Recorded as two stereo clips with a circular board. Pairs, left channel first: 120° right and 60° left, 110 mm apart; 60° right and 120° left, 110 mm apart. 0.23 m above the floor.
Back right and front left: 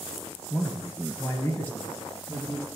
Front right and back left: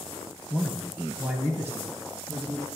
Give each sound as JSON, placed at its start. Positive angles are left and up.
{"t": 0.5, "sound": "a man speaking", "azimuth_deg": -125, "distance_m": 0.9}